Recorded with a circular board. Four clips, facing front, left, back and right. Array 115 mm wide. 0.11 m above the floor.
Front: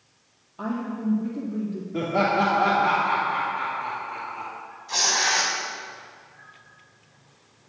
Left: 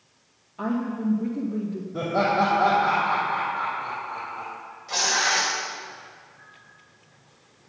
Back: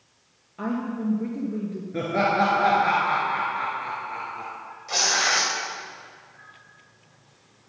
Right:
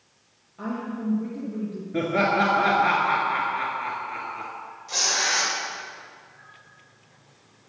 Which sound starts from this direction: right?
Laughter, at 1.9 s.